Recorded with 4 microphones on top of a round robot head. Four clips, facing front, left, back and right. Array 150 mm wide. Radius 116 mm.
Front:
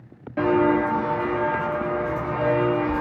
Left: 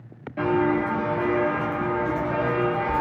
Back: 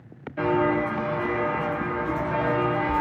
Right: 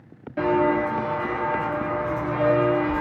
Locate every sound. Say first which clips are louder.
0.4 s footsteps: right 1 dB, front 3 dB; 10° right, 0.6 m; by 3.0 s 110° left, 1.3 m